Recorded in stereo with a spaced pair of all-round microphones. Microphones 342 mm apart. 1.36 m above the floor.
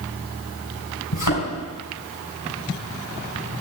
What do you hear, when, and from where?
1.1 s a thud: 65° left (ahead or behind), 4 m